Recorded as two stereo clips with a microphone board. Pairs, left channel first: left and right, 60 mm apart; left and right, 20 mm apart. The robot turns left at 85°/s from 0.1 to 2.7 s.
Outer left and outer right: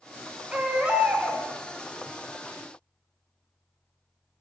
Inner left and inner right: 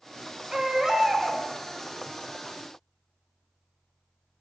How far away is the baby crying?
About 0.5 m.